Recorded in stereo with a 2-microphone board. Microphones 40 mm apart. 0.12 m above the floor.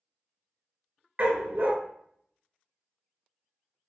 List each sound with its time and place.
1.2 s a dog barking: 40° right (ahead or behind), 0.5 m